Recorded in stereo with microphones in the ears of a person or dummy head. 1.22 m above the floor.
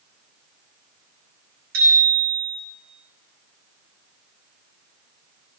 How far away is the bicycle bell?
About 5.5 m.